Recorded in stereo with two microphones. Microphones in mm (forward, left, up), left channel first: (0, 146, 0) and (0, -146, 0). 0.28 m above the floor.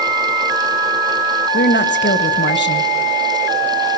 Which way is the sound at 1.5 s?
35° left (ahead or behind).